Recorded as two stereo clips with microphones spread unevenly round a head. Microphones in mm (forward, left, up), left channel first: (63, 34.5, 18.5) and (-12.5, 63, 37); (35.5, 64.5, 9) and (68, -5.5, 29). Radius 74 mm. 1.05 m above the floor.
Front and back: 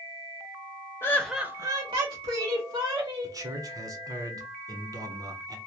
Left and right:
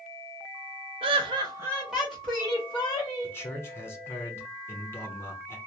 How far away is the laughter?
About 0.5 m.